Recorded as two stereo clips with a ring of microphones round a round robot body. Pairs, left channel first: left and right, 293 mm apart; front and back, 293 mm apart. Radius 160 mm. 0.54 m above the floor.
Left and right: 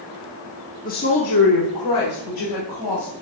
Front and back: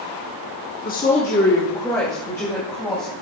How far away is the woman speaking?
About 1.0 m.